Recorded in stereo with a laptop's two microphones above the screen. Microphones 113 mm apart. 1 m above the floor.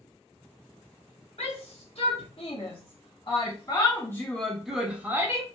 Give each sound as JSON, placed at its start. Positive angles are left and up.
{"t": 1.4, "sound": "a shout", "side_deg": 70, "distance_m": 1.8}